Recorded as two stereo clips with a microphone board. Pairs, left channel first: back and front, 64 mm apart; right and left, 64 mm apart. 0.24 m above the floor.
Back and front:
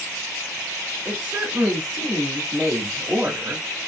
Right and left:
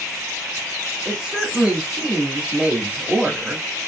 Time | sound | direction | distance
1.1 | a woman speaking | 35° left | 1.0 m